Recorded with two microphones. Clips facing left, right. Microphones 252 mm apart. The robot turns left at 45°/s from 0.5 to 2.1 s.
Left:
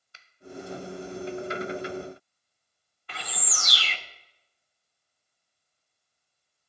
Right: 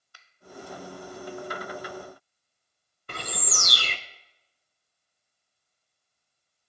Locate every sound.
0.1 s a finger snap: 25° left (ahead or behind), 0.7 m
3.1 s a bird: 50° right (ahead or behind), 0.7 m